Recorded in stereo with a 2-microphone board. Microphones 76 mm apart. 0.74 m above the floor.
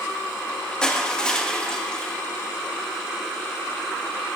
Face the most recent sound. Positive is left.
turn(degrees=10)  # may be behind; listen again after turning